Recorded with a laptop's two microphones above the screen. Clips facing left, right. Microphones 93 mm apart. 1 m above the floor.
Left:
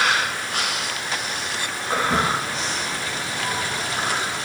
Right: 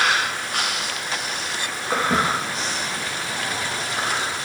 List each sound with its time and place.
1.9 s footsteps: 20° right (ahead or behind), 5 m; by 4.4 s 15° left (ahead or behind), 4.5 m